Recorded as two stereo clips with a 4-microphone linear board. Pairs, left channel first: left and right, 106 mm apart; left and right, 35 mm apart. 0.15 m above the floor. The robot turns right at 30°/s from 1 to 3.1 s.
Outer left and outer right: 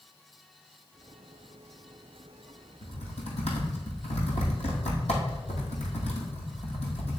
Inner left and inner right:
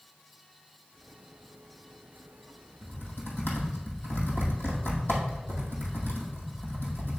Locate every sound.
2.8 s typing on a keyboard: 80° left, 2 m